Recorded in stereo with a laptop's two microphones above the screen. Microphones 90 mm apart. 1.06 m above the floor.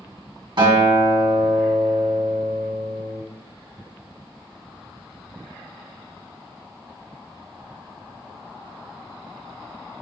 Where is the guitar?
60° right (ahead or behind), 2 m.